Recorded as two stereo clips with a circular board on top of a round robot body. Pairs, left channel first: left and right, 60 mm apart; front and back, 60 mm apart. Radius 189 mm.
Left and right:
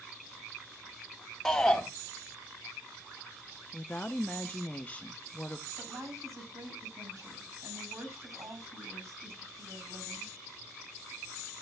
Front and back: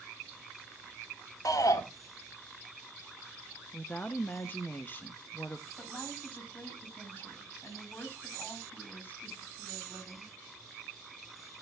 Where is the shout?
10° left, 3 m.